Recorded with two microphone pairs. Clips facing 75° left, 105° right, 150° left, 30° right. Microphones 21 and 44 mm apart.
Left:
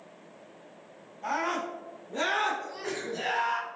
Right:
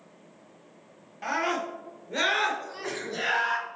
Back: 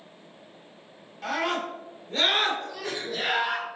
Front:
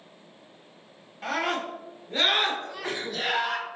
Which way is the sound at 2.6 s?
30° right.